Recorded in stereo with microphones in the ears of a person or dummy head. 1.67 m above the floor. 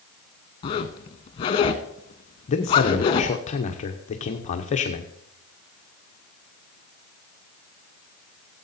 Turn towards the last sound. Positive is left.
turn(degrees=35)  # may be behind; listen again after turning